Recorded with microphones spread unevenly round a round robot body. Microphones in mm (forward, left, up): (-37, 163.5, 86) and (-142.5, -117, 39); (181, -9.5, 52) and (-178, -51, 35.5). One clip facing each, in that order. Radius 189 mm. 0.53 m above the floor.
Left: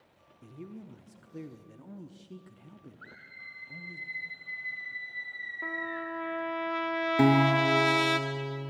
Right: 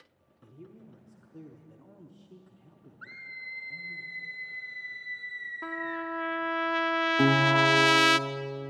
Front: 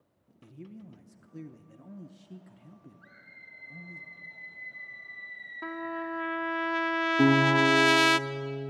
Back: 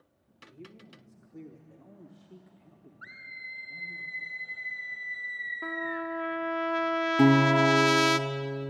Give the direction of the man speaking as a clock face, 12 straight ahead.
11 o'clock.